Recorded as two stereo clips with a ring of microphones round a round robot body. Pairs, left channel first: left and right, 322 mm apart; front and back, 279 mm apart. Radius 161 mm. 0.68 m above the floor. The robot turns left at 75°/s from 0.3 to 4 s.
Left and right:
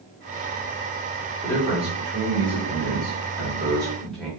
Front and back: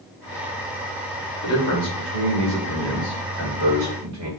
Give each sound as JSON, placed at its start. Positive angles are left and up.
{"t": 1.4, "sound": "a man speaking", "azimuth_deg": 10, "distance_m": 1.2}